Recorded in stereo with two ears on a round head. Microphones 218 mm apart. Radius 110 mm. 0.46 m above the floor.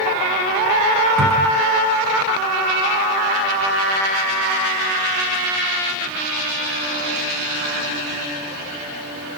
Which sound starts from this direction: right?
A cupboard door, at 1.2 s.